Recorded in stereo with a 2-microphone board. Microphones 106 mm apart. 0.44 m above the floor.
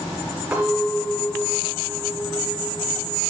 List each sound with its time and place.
0.5 s a clink: 15° right (ahead or behind), 6 m